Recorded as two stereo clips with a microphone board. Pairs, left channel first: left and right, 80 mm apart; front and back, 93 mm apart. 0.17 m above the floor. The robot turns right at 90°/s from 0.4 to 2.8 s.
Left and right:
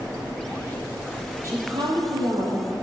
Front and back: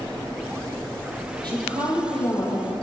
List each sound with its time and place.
1.4 s a woman speaking: 145° right, 5.5 m; by 2.7 s 30° right, 5.5 m